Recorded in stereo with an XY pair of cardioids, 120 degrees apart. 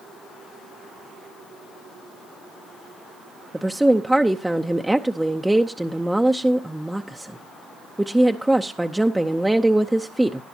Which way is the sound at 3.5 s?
5° right.